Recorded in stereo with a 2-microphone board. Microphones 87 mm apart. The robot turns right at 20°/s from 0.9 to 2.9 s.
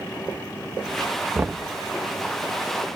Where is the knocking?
20° right (ahead or behind), 0.6 m; by 1.7 s 25° right (ahead or behind), 0.6 m.